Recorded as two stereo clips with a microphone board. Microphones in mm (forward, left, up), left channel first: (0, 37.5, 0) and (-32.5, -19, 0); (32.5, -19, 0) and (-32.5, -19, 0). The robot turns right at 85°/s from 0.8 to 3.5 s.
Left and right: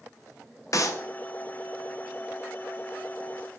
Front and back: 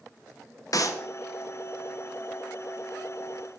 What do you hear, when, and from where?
0.7 s a clap: 25° left, 0.7 m; by 1.0 s 45° left, 0.7 m